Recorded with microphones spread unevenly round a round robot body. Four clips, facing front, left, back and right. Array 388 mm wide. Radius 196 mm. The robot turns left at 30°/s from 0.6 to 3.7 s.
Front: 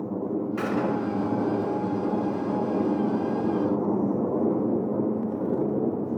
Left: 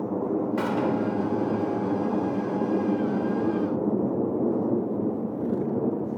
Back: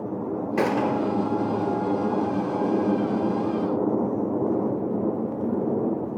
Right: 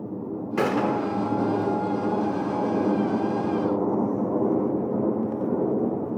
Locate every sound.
0.6 s a gunshot: 125° right, 2 m; by 1.1 s 140° right, 2 m